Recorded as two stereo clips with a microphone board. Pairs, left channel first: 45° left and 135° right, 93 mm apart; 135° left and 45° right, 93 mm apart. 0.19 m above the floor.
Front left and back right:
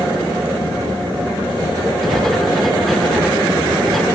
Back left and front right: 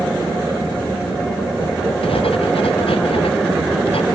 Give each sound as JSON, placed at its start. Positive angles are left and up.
{"t": 2.0, "sound": "writing", "azimuth_deg": 130}